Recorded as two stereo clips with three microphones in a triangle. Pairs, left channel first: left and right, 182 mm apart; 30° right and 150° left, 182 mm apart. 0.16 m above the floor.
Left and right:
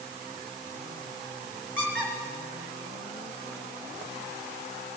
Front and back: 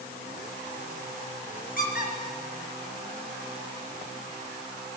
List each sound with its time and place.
1.8 s a squeak: 10° left, 4 m